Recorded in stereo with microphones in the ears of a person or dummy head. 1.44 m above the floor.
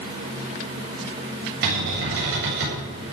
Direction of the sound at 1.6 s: 65° right (ahead or behind).